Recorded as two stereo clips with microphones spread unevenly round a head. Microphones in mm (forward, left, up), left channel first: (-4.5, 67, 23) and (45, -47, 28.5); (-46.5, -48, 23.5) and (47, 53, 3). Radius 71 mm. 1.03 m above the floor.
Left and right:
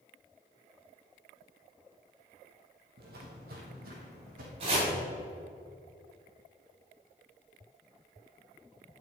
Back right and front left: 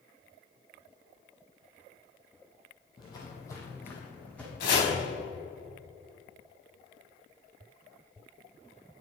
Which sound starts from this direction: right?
Footsteps, at 3.0 s.